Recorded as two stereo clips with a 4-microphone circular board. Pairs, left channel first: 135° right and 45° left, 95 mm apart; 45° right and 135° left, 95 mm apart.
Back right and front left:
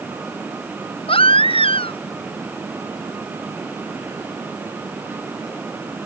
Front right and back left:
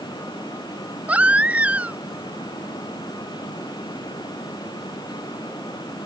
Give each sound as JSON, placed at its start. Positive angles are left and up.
{"t": 1.1, "sound": "a baby crying", "azimuth_deg": -150}